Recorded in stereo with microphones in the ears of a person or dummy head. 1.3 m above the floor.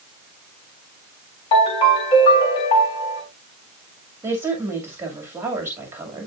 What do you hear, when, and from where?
1.5 s a ringtone: 25° left (ahead or behind), 3.5 m
4.2 s a woman speaking: 20° right (ahead or behind), 2.5 m